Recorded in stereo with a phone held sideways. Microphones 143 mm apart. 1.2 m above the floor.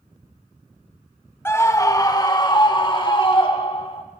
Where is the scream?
15° left (ahead or behind), 1.5 m; by 4.0 s 40° left (ahead or behind), 4 m.